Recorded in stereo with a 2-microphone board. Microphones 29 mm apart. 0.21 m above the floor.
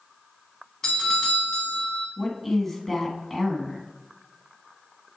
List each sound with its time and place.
0.8 s a doorbell: 15° left (ahead or behind), 1.9 m
2.2 s a woman speaking: centre (ahead or behind), 1.4 m